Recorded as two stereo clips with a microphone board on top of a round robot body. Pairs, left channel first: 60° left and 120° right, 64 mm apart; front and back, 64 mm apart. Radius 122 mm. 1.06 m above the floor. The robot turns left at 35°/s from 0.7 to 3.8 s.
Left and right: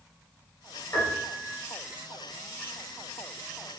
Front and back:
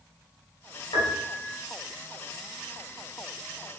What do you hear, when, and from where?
0.9 s a piano: 5° left, 1.4 m; by 1.6 s 20° right, 1.4 m